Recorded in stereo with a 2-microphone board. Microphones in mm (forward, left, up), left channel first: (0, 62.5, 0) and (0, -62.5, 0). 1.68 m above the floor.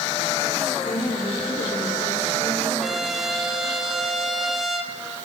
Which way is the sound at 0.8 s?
70° left (ahead or behind).